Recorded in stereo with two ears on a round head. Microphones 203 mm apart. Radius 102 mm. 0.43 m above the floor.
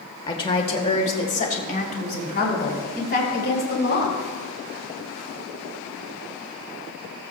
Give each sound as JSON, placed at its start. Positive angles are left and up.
{"t": 0.3, "sound": "a woman speaking", "side_deg": 20, "distance_m": 1.6}